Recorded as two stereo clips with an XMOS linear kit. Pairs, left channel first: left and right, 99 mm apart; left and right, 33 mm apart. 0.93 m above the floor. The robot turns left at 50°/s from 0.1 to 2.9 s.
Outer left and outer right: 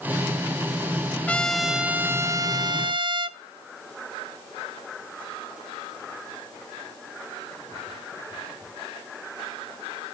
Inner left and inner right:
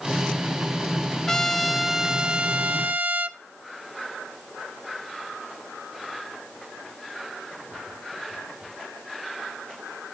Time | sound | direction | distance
1.3 | a trumpet | 15° left | 0.6 m